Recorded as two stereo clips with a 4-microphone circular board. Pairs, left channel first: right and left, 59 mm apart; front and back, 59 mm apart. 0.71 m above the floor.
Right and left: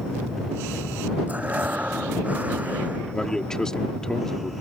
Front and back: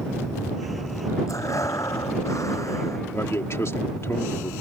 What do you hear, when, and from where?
1.3 s breathing: 25° left
3.1 s a man speaking: 15° right